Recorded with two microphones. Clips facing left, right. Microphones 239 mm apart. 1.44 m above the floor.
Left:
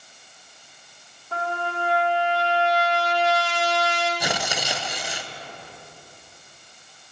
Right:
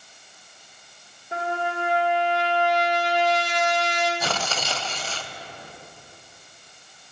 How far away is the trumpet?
About 1.5 m.